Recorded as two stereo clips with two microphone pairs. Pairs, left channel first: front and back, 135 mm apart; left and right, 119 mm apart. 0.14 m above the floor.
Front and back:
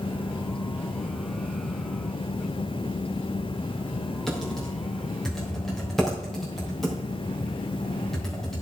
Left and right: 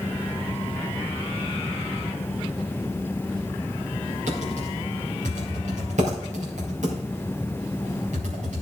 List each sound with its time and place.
4.3 s typing on a keyboard: 90° right, 3.5 m